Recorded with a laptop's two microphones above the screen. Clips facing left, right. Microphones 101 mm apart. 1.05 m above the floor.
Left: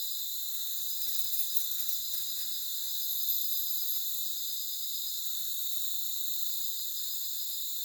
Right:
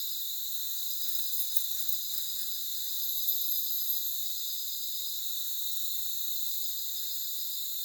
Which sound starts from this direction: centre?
Keys jangling, at 1.0 s.